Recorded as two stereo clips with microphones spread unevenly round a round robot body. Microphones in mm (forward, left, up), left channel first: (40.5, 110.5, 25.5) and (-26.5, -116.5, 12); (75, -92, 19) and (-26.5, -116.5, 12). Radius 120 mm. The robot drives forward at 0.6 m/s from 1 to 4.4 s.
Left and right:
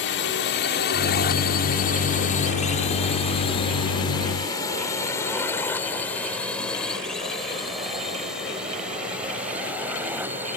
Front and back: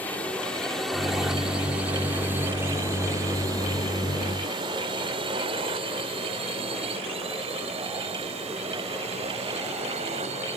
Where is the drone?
90° left; by 10.6 s 175° left.